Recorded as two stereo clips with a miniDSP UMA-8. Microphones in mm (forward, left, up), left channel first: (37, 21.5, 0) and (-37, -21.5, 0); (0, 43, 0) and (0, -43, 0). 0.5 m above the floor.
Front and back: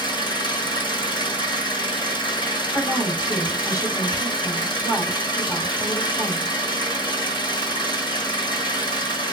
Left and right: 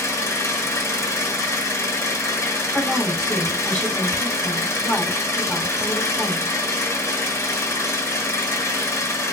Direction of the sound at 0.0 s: 30° left.